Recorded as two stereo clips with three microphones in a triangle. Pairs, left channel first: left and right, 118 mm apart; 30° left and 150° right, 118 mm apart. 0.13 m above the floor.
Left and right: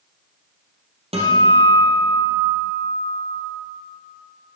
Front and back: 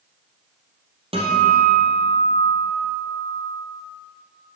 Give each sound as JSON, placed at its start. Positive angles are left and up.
{"t": 1.1, "sound": "a guitar", "azimuth_deg": -120, "distance_m": 3.5}